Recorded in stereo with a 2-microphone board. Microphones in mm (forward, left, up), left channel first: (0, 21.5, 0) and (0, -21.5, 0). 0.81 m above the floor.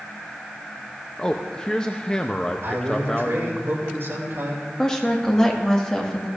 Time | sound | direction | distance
1.2 | a man speaking | 20° left (ahead or behind) | 0.6 m
2.6 | a man speaking | 70° right (ahead or behind) | 2.5 m
4.8 | a woman speaking | 15° left (ahead or behind) | 1.6 m